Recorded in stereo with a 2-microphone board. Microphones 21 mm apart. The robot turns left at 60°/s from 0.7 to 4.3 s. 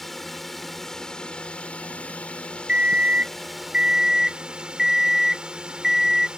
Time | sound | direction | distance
0.0 | a drone | 175° left | ?
2.7 | an alarm clock | 65° right | ?